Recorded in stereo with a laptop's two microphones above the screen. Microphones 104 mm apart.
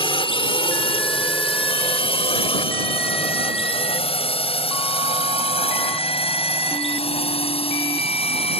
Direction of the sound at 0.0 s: 70° left (ahead or behind).